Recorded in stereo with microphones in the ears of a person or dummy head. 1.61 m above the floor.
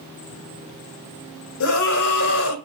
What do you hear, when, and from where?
1.6 s a scream: 70° left (ahead or behind), 2.5 m